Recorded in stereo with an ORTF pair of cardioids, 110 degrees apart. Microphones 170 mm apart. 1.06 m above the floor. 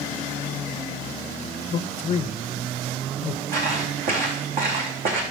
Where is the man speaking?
40° left, 0.6 m.